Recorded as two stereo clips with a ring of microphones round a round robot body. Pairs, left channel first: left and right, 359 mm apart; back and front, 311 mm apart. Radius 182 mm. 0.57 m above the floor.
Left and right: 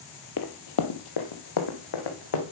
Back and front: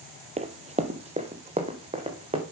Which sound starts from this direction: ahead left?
Running footsteps, at 0.4 s.